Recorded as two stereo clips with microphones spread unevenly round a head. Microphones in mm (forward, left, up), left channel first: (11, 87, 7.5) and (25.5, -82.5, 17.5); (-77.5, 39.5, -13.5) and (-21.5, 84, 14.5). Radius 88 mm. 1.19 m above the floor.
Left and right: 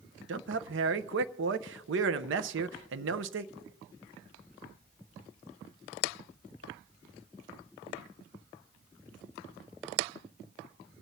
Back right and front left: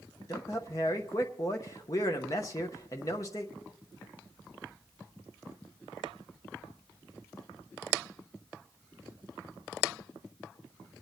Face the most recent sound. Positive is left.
turn(degrees=-95)